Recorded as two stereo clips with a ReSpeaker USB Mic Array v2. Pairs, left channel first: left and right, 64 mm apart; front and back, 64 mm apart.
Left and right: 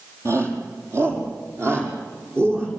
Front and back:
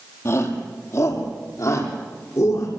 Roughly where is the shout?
Ahead right.